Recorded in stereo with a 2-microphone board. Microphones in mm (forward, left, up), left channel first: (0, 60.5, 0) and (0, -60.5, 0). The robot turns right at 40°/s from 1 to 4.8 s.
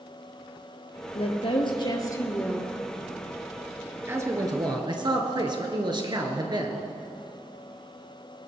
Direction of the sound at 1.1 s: 110° left.